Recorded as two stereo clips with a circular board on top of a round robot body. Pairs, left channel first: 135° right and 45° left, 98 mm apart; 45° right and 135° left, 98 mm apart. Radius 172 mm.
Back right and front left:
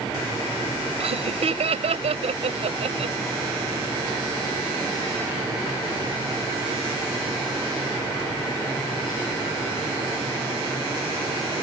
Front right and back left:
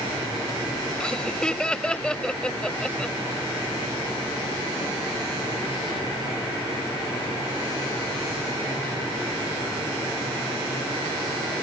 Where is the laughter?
35° left.